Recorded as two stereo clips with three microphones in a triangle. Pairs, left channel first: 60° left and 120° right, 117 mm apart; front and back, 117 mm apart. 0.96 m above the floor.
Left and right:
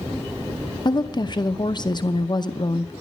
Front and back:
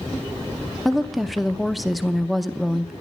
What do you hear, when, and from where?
0.8 s a woman speaking: 90° left, 0.7 m